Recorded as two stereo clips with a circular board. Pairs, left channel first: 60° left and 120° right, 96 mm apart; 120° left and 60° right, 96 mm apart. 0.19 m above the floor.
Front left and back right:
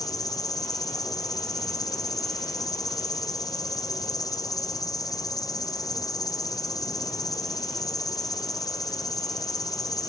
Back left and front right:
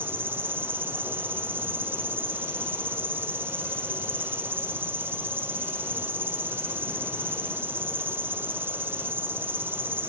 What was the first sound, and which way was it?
An insect, 10° left.